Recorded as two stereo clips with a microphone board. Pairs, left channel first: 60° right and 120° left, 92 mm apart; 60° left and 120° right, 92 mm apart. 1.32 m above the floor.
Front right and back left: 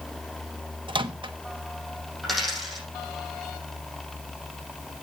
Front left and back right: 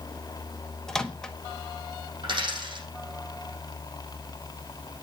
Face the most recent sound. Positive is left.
turn(degrees=-150)